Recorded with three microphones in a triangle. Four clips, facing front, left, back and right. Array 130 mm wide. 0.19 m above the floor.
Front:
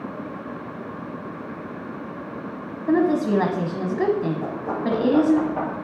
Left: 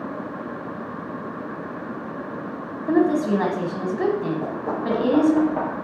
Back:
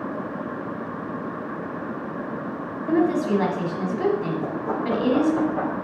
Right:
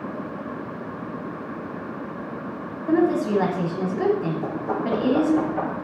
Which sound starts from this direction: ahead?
A woman speaking, at 2.9 s.